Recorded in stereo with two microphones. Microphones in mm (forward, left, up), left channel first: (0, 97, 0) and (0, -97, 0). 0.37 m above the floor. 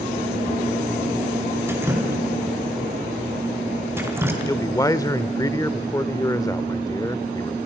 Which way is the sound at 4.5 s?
20° left (ahead or behind).